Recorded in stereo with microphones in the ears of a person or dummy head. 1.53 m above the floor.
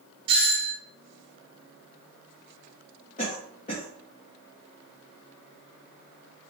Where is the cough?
35° left (ahead or behind), 1.0 m.